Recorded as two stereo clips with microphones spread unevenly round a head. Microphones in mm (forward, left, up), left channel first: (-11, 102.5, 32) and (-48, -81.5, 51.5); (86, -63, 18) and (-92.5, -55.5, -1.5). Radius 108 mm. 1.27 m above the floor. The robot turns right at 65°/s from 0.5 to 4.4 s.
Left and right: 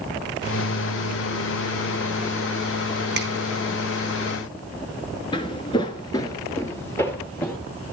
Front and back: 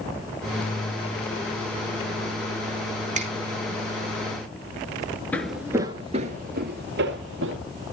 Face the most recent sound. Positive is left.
turn(degrees=160)